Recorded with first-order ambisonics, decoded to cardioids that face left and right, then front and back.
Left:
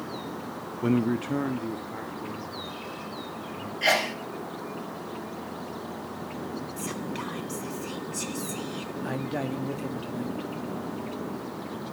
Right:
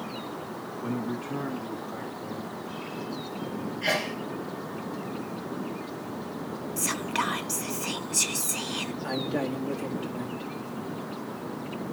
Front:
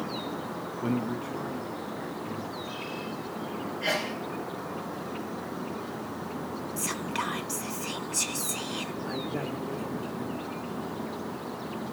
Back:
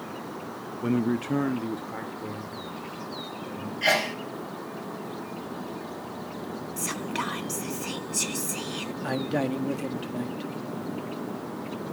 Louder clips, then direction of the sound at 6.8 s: Right 10 dB, back 1 dB; 95° right.